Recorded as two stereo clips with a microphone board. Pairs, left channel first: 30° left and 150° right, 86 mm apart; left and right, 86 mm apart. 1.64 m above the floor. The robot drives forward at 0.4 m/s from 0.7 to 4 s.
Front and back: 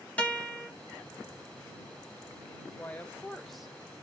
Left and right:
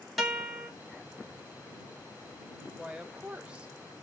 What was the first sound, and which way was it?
A guitar, straight ahead.